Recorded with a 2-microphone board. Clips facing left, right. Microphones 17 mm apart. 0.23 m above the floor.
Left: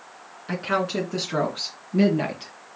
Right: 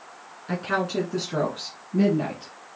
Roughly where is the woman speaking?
Centre.